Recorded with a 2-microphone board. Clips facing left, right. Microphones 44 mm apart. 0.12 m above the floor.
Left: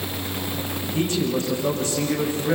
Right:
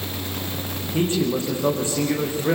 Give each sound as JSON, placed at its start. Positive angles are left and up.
{"t": 0.9, "sound": "a man speaking", "side_deg": -25, "distance_m": 7.5}